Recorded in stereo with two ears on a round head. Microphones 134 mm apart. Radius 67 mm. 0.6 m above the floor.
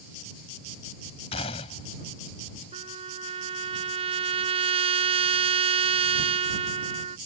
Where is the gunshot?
40° left (ahead or behind).